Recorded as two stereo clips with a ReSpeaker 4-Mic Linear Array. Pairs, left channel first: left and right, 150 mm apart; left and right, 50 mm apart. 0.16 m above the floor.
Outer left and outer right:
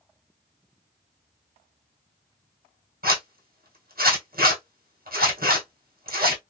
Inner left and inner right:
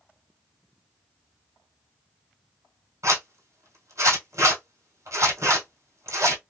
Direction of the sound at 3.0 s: 80° right.